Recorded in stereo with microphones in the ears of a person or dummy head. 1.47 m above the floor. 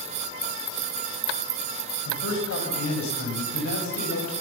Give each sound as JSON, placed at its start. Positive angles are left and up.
{"t": 2.0, "sound": "a man speaking", "side_deg": 80, "distance_m": 7.5}